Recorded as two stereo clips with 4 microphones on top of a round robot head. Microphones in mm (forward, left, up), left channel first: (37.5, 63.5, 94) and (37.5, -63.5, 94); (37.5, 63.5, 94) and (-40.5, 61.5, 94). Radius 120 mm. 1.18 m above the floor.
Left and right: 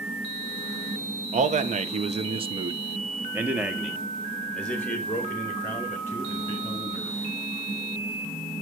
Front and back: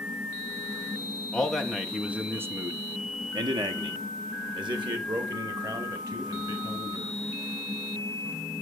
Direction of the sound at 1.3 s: 80° right.